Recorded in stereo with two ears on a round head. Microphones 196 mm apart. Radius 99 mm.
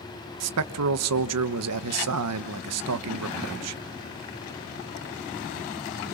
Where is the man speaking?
85° right, 1.2 m.